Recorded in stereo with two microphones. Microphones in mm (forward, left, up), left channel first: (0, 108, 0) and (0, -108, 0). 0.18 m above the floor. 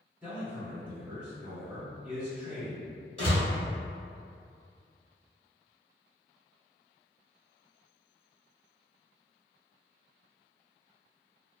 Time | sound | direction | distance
0.2 | a man speaking | 5° right (ahead or behind) | 1.7 m
3.2 | a door slam | 30° left (ahead or behind) | 1.3 m